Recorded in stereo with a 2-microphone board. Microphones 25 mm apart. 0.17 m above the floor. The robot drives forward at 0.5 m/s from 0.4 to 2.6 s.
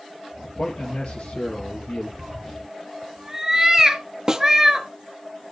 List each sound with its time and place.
0.6 s a man speaking: 60° left (ahead or behind), 3.5 m; by 2.1 s 65° left (ahead or behind), 3.5 m
2.2 s a cat meowing: 15° right (ahead or behind), 1.7 m
4.3 s a snare drum: 25° right (ahead or behind), 0.7 m